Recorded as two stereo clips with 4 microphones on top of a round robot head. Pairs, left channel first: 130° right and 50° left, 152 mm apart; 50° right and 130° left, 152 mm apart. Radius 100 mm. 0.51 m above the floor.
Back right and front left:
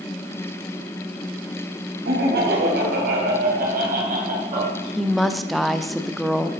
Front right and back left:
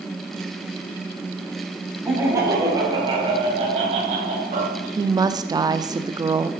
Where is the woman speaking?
140° left, 0.7 m.